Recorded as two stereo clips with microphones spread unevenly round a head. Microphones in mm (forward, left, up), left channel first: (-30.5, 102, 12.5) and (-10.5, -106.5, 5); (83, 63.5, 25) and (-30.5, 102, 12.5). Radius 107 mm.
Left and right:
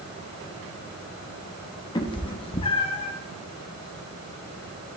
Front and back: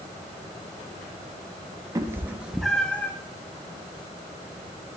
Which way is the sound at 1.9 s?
125° left.